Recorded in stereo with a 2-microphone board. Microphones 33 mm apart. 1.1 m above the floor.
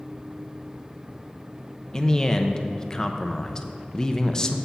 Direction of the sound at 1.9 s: 20° left (ahead or behind).